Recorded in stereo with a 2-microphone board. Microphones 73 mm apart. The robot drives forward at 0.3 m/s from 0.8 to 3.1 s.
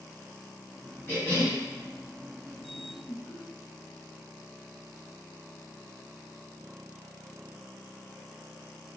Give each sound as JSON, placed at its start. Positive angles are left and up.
{"t": 1.1, "sound": "a cough", "side_deg": 30, "distance_m": 1.8}
{"t": 3.1, "sound": "laughter", "side_deg": 15, "distance_m": 1.9}